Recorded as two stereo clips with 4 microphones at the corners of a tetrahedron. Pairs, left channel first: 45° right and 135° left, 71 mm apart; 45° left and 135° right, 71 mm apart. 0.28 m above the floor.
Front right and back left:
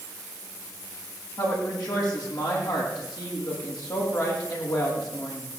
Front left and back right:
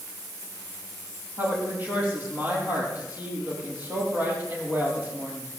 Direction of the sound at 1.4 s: 70° right.